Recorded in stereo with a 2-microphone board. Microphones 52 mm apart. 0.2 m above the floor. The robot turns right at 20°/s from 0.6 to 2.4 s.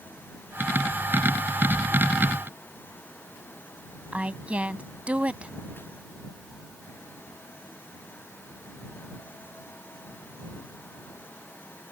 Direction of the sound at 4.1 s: 25° right (ahead or behind).